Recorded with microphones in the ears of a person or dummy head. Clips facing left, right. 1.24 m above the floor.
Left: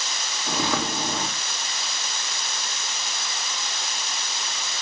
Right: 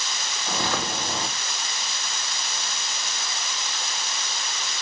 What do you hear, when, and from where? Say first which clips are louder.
0.5 s footsteps: left 2 dB; 65° left (ahead or behind), 3.5 m